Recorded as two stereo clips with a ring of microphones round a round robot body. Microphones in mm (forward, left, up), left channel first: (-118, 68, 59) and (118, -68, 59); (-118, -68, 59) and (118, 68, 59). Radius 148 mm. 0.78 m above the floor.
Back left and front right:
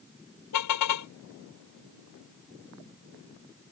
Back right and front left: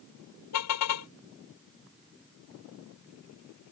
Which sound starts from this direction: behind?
A car horn, at 0.5 s.